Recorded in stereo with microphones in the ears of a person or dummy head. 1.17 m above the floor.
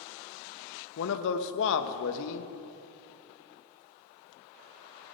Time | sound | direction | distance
1.0 | a man speaking | 70° left (ahead or behind) | 1.1 m